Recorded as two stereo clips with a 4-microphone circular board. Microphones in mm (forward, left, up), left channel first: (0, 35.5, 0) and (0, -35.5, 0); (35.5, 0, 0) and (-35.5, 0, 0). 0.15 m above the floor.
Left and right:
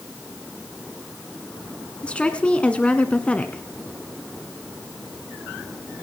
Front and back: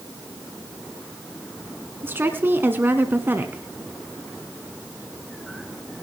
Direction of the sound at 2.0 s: 150° left.